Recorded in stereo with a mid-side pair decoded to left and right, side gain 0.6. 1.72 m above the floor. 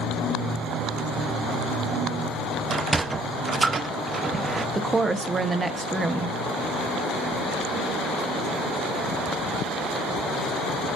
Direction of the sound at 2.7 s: 25° right.